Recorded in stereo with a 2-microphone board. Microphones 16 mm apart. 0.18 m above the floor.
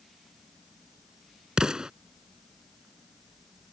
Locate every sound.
1.6 s an explosion: 55° right (ahead or behind)